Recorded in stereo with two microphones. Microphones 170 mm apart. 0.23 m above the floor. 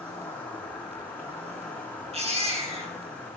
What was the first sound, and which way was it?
An insect, 10° left (ahead or behind).